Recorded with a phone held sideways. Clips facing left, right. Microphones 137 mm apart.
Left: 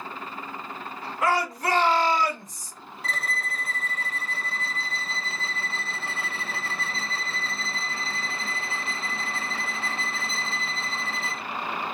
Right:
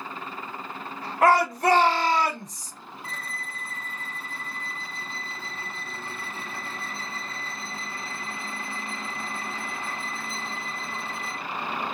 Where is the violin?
80° left, 0.5 m.